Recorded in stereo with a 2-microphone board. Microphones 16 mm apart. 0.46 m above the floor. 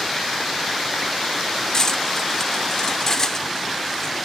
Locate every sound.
1.7 s cutlery clinking: 30° left (ahead or behind)